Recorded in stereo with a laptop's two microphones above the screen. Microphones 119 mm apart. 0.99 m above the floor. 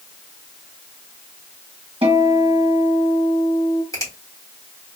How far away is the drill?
I don't hear a drill.